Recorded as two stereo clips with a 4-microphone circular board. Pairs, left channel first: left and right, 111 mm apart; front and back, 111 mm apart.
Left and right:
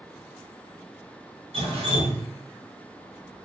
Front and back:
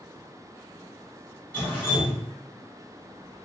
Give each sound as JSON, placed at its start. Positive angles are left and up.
{"t": 1.5, "sound": "dripping", "azimuth_deg": -70, "distance_m": 1.3}